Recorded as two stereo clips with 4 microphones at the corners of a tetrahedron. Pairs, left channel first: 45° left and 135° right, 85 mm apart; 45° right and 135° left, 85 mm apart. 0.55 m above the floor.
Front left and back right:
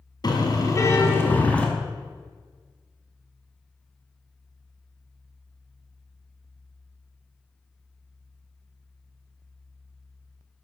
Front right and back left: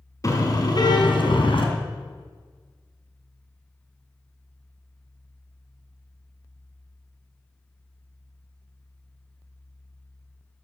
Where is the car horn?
5° left, 3 m; by 1.7 s 35° right, 2.5 m.